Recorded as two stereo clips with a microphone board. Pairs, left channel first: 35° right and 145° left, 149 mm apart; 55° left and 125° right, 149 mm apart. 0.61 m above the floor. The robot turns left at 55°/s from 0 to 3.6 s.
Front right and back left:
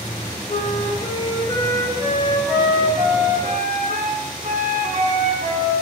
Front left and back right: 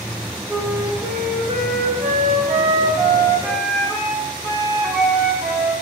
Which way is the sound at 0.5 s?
35° right.